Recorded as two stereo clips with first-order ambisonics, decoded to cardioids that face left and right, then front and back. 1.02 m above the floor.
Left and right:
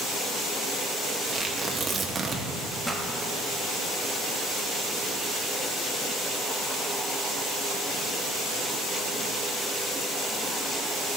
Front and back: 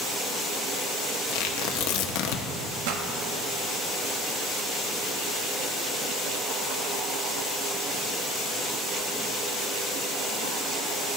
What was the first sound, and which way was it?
Tearing paper, 15° right.